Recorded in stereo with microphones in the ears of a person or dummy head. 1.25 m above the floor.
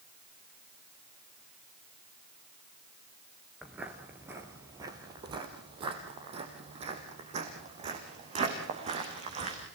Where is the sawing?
I don't hear sawing.